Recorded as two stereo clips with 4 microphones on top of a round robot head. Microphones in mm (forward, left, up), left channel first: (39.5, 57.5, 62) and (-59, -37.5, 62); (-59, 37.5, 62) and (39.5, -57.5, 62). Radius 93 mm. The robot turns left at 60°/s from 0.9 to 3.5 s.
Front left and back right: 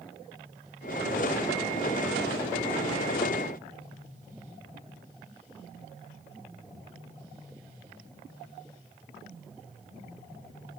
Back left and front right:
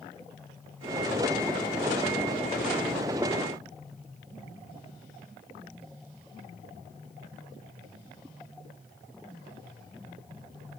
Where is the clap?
I don't hear a clap.